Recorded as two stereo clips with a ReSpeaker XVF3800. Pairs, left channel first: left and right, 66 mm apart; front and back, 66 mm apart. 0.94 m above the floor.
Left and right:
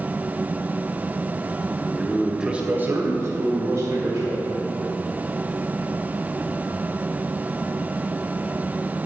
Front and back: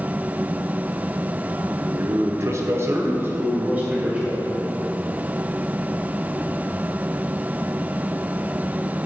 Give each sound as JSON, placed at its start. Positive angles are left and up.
{"t": 1.9, "sound": "a man speaking", "azimuth_deg": 165, "distance_m": 0.8}